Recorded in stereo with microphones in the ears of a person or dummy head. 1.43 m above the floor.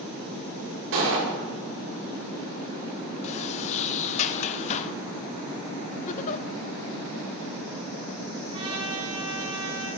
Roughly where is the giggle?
Left.